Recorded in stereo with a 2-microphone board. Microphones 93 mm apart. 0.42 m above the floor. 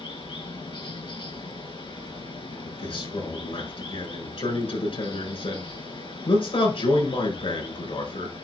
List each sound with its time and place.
0.0 s running water: 75° left (ahead or behind), 3.5 m
2.6 s a man speaking: 80° left, 5 m